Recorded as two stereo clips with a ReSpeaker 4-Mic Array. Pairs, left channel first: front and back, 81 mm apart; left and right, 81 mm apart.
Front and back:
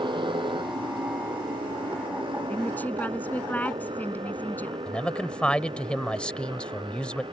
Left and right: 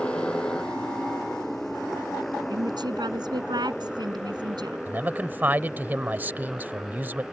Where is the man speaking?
60° right.